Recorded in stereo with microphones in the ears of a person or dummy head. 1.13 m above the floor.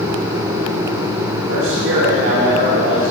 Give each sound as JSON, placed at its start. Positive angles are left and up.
{"t": 1.5, "sound": "a man speaking", "side_deg": -80, "distance_m": 2.5}